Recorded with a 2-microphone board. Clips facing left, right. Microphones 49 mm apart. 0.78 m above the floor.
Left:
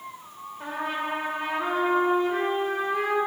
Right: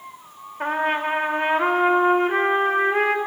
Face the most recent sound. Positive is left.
turn(degrees=-50)  # may be behind; listen again after turning